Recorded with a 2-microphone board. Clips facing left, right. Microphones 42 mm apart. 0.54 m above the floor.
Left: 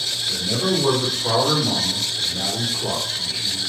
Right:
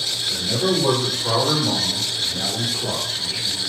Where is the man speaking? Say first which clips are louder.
Right 1 dB; 10° left (ahead or behind), 1.6 m.